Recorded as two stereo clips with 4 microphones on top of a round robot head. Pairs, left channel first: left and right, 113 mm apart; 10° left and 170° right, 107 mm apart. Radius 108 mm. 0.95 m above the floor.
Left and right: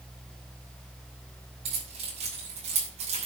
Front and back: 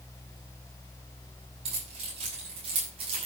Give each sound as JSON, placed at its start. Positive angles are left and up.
{"t": 1.6, "sound": "keys jangling", "azimuth_deg": -130, "distance_m": 6.5}